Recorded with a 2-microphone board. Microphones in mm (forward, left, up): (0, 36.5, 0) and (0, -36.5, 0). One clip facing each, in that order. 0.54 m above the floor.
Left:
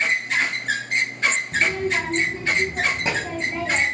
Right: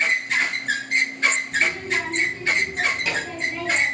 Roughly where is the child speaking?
Left.